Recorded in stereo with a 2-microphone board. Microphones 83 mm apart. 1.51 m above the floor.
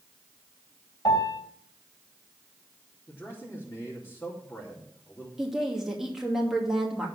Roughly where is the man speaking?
Left.